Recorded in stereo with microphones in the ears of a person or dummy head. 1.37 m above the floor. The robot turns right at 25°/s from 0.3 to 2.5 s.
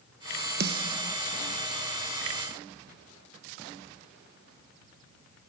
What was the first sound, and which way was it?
A snare drum, 65° right (ahead or behind).